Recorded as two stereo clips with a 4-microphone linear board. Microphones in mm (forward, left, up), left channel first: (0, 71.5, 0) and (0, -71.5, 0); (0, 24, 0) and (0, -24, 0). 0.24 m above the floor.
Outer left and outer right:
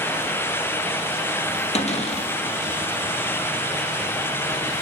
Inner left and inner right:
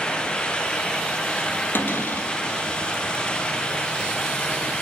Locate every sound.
1.8 s a cupboard door: 50° left (ahead or behind), 2.5 m